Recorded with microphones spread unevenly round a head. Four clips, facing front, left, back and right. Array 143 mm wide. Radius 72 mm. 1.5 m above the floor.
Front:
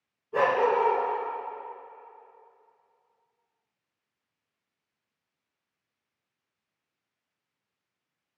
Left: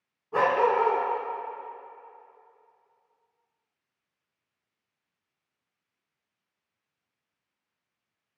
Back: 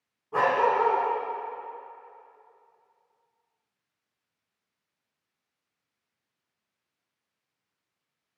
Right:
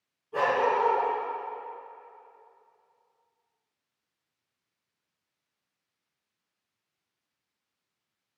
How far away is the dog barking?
About 5 m.